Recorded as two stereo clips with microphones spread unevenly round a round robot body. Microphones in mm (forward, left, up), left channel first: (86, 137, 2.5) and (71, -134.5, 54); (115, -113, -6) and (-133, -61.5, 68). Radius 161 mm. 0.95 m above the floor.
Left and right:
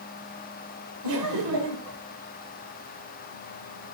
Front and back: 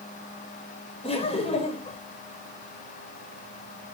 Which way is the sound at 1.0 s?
80° right.